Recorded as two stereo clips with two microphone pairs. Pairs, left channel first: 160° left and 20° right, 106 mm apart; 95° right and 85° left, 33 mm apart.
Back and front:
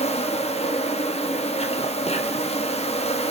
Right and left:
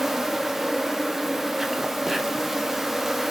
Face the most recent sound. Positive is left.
turn(degrees=165)